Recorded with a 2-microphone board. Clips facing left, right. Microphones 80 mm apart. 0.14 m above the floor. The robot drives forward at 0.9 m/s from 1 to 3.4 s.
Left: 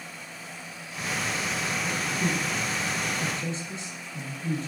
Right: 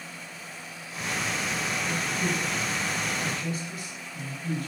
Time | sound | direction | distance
1.8 | a man speaking | 20° left (ahead or behind) | 5.5 m